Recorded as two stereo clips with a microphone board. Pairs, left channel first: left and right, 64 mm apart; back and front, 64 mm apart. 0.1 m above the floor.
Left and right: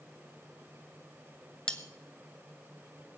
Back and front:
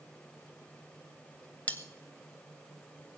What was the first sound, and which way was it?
Cutlery clinking, 150° left.